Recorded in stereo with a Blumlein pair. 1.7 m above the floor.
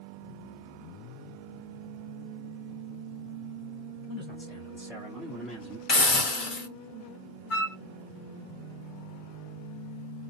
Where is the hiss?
25° left, 1.1 m.